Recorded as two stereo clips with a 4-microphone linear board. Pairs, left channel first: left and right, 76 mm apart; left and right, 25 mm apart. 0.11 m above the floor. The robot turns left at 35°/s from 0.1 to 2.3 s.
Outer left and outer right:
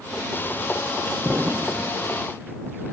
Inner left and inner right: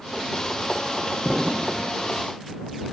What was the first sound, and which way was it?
An explosion, 40° right (ahead or behind).